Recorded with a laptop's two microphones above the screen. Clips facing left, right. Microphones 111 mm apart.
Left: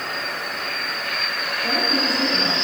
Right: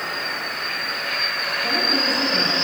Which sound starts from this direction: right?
A woman speaking, at 1.6 s.